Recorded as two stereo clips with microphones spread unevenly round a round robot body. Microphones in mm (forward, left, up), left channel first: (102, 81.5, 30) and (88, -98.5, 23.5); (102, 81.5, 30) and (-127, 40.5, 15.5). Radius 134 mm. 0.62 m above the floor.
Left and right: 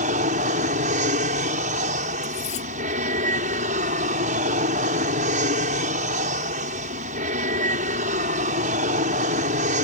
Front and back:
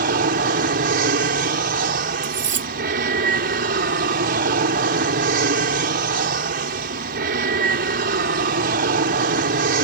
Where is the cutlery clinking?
150° left.